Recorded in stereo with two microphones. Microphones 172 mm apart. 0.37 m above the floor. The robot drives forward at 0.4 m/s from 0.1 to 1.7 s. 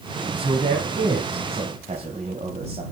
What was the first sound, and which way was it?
A man speaking, 35° right (ahead or behind).